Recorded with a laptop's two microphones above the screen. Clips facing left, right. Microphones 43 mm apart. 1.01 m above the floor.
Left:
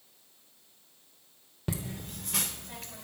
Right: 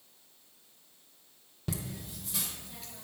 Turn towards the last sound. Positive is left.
turn(degrees=50)  # may be behind; listen again after turning